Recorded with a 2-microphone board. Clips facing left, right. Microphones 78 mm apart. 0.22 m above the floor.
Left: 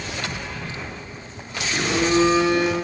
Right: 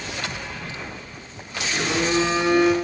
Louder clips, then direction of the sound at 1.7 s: Left 2 dB; 15° left (ahead or behind).